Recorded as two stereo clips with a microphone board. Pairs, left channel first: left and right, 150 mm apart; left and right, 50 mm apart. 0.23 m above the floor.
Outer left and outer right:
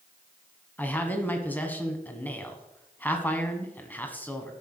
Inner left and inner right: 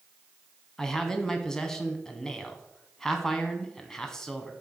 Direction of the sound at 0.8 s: 10° left (ahead or behind).